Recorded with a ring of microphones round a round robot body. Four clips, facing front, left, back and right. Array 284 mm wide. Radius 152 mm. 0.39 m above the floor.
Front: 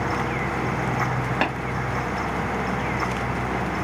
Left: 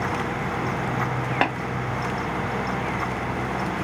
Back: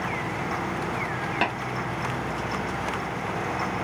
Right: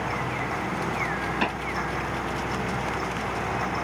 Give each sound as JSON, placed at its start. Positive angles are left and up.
{"t": 1.4, "sound": "tapping", "azimuth_deg": 75, "distance_m": 2.0}